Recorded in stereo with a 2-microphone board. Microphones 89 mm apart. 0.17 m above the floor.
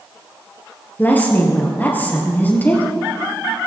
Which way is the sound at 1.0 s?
20° left (ahead or behind).